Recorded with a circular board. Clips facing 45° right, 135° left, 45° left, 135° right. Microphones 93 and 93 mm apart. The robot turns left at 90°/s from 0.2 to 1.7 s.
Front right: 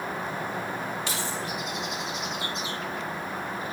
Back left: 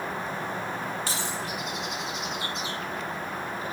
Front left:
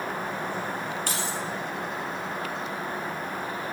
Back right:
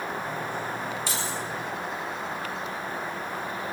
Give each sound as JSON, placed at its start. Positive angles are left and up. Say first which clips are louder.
{"t": 1.1, "sound": "keys jangling", "louder": "even, front left 1 dB", "azimuth_deg": 85, "distance_m": 3.0}